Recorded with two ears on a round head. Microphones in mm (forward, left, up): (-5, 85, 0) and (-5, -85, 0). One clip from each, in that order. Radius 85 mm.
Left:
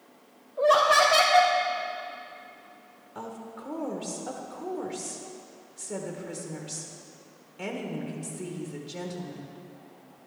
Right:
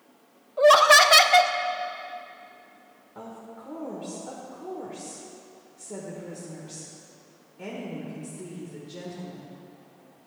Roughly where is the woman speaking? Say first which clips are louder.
Left 2 dB; left.